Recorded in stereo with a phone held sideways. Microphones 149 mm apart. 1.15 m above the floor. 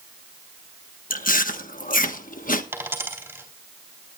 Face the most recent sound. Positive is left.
turn(degrees=-15)  # may be behind; listen again after turning